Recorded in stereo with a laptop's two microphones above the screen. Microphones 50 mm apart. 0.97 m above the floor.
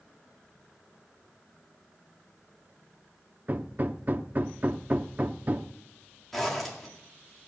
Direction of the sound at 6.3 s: 5° left (ahead or behind).